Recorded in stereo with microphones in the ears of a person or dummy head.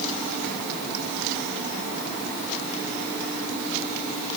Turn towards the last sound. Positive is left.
No sound to turn to.